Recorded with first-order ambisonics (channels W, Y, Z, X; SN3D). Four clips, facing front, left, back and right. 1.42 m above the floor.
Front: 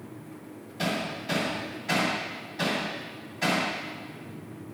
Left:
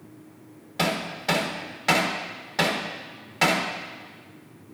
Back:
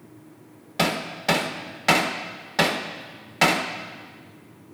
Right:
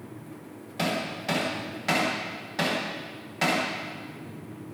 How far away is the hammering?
About 1.1 m.